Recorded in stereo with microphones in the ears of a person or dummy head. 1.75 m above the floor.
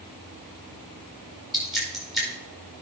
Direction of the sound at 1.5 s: Centre (ahead or behind).